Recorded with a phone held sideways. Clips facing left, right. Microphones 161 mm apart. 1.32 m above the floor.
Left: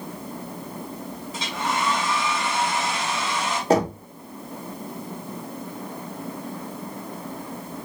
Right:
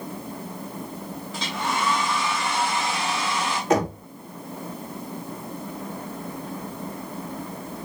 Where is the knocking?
30° left (ahead or behind), 1.3 m.